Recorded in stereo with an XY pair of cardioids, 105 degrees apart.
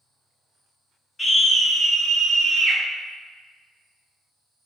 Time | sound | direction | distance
1.2 | a scream | 15° left | 1.2 m